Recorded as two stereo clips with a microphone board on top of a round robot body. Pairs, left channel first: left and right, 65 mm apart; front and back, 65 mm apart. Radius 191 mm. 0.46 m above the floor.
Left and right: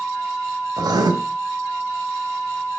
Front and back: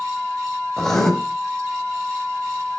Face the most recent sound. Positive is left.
turn(degrees=-85)